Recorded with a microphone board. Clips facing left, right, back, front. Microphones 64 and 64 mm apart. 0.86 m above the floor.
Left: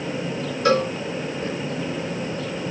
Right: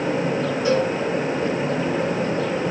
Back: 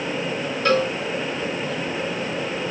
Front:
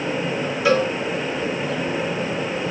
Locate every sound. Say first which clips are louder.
0.7 s a cowbell: left 2 dB, front 1 dB; 85° left, 1.6 m